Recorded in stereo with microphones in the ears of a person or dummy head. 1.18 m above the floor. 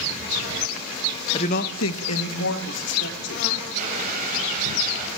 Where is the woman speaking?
25° left (ahead or behind), 0.9 m; by 3.4 s 65° left (ahead or behind), 3 m.